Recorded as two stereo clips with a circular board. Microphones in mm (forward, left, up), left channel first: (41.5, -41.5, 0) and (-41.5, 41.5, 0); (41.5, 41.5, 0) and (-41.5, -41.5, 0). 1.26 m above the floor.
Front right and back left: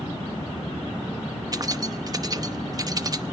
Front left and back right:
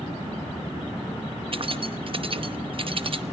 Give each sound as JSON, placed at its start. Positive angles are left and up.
{"t": 1.5, "sound": "keys jangling", "azimuth_deg": -170, "distance_m": 0.9}